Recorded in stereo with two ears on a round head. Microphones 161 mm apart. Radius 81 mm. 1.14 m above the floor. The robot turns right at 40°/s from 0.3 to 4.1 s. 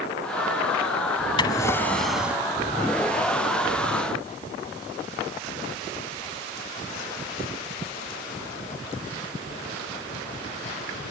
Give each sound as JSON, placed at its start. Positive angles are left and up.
{"t": 1.4, "sound": "a drawer", "azimuth_deg": 150}